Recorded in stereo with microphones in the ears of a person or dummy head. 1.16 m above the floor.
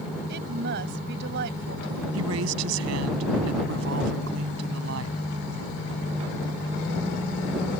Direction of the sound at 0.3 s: 65° right (ahead or behind).